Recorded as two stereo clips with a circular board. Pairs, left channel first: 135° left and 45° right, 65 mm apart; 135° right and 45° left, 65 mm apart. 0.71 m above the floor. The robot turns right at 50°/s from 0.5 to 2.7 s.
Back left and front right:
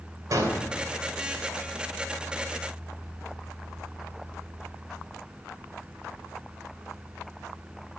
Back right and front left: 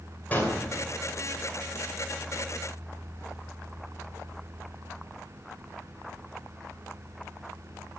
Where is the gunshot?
70° right, 2.5 m; by 0.6 s 65° right, 2.5 m.